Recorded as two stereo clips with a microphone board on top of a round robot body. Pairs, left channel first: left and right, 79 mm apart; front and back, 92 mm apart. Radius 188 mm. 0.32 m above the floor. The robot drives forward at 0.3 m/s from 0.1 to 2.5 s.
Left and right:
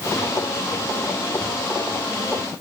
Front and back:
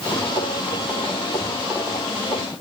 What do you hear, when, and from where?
Only background noise.